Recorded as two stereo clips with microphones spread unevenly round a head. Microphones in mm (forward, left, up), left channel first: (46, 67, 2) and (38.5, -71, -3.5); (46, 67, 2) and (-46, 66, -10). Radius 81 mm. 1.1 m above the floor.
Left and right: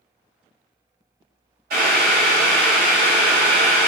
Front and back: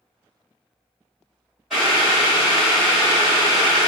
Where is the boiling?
90° right, 1.7 m.